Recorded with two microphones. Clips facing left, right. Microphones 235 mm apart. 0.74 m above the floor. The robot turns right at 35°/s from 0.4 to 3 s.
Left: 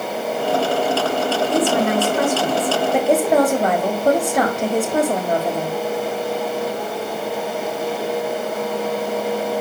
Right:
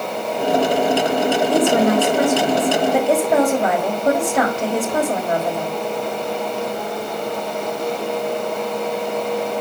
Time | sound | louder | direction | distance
1.5 | a woman speaking | right 3 dB | 40° right | 1.3 m